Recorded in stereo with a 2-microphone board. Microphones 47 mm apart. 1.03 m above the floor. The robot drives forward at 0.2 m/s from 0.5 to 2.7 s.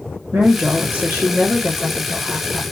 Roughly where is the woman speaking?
Right.